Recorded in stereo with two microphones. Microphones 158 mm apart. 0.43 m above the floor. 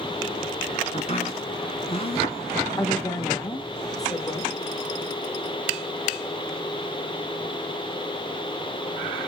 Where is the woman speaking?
20° left (ahead or behind), 1.2 m.